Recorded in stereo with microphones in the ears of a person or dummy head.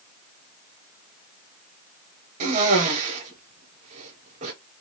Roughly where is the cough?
Right.